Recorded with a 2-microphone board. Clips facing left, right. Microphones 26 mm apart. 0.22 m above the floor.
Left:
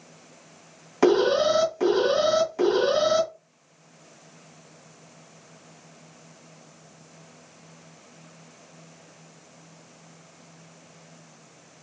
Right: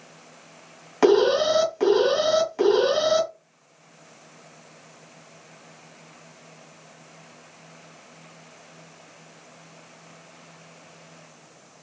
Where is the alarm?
20° right (ahead or behind), 2.5 m.